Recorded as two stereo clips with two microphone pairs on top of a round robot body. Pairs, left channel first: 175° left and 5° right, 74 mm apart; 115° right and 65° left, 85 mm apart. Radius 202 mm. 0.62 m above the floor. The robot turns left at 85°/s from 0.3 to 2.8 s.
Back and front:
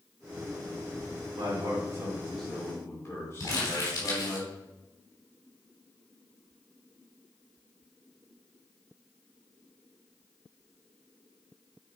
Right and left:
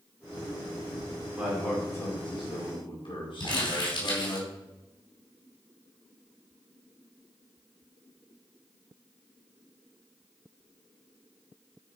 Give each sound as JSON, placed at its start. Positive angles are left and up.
{"t": 1.4, "sound": "a man speaking", "azimuth_deg": -5, "distance_m": 5.5}
{"t": 3.4, "sound": "crumpling", "azimuth_deg": -140, "distance_m": 4.0}